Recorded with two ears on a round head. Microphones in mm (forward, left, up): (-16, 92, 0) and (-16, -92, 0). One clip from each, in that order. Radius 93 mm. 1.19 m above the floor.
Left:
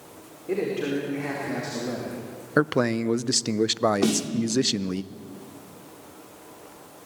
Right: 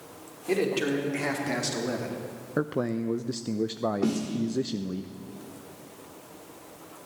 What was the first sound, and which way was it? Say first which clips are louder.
A man speaking: even; 60° right (ahead or behind).